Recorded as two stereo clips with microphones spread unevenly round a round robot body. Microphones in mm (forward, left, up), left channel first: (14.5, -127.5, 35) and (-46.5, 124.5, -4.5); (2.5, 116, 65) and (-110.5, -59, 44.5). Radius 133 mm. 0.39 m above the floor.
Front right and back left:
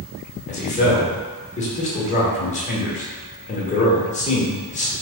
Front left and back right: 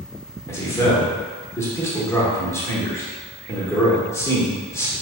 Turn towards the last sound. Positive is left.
turn(degrees=-20)